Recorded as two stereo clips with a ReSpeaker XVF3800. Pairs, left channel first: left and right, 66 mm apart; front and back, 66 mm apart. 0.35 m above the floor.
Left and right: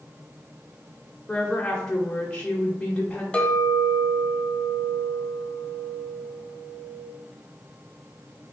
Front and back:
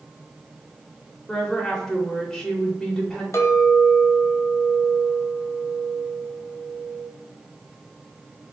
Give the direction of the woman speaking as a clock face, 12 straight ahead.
10 o'clock.